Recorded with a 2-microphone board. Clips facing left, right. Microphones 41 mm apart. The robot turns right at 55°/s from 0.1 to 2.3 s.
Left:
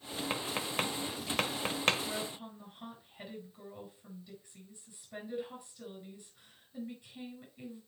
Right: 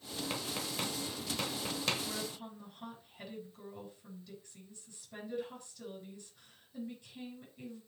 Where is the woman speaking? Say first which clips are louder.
Left 2 dB; centre (ahead or behind), 6 m; by 7.8 s 15° left (ahead or behind), 6 m.